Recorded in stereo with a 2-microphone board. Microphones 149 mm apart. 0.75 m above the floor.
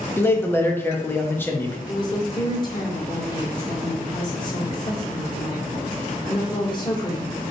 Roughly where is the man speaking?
Centre.